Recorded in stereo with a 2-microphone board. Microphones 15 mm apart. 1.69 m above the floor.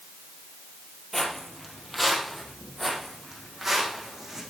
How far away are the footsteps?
About 2.5 m.